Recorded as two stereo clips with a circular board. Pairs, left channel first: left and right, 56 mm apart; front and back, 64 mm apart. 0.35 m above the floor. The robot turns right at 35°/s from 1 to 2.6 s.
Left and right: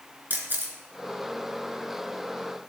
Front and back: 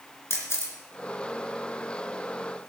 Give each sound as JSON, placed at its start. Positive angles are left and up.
{"t": 0.3, "sound": "a camera shutter", "azimuth_deg": -35, "distance_m": 3.0}